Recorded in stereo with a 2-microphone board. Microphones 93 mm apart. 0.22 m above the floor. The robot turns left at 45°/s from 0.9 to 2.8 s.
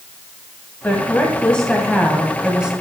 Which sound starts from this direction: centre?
A woman speaking, at 0.8 s.